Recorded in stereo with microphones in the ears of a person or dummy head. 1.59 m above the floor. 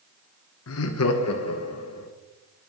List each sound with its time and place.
0.7 s laughter: 75° left (ahead or behind), 0.8 m; by 2.1 s 80° left, 1.9 m